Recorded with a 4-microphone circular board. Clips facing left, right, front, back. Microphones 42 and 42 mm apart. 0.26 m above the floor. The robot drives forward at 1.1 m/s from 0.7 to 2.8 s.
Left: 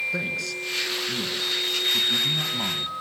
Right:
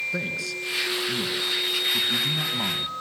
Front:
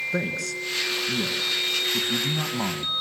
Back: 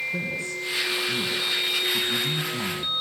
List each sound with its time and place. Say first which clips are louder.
0.1 s a man speaking: left 1 dB, front 2 dB; straight ahead, 3.5 m; by 2.9 s 5° right, 1.7 m